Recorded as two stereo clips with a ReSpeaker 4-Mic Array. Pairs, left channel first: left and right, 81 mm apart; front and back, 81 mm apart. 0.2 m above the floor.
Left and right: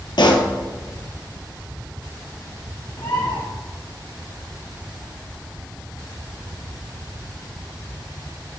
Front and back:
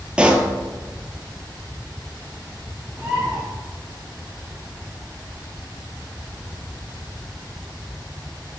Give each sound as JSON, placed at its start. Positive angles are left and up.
{"t": 0.2, "sound": "a pop", "azimuth_deg": 105, "distance_m": 0.9}
{"t": 3.0, "sound": "a bird", "azimuth_deg": 95, "distance_m": 2.5}